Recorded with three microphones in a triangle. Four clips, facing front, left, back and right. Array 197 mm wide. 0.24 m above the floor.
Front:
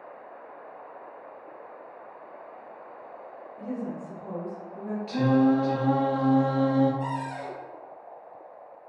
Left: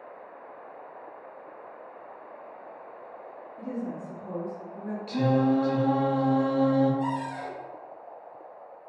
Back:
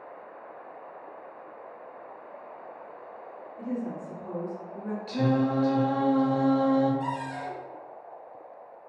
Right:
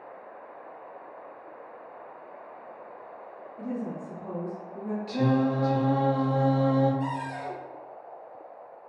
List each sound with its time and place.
3.6 s a woman speaking: 20° right, 1.8 m; by 5.0 s 105° right, 1.3 m
5.1 s singing: 35° left, 0.6 m
7.0 s a cupboard door: 10° left, 1.7 m